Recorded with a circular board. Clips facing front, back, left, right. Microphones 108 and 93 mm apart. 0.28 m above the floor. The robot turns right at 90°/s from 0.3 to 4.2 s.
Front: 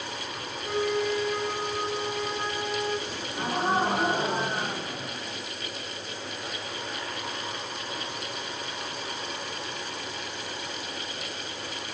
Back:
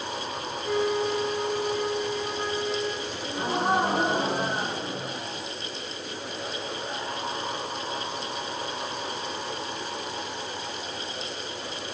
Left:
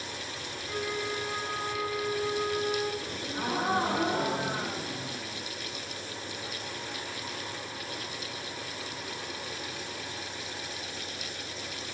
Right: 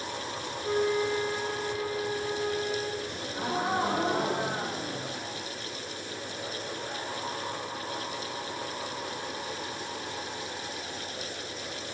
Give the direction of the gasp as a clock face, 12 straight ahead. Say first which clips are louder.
Back 2 dB, even; 8 o'clock.